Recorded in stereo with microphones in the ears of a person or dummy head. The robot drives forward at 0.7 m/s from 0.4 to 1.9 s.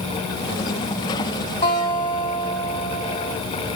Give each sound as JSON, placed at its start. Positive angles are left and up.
{"t": 1.6, "sound": "a guitar", "side_deg": 30, "distance_m": 2.5}